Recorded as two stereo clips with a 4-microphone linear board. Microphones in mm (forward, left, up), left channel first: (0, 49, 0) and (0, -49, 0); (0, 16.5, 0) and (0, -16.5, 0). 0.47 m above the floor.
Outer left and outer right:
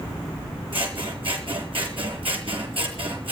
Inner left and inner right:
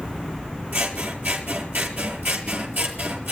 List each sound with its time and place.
0.7 s scissors: 70° right (ahead or behind), 6.5 m